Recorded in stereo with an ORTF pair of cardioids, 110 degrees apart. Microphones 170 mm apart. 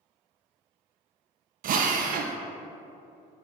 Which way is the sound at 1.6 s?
55° right.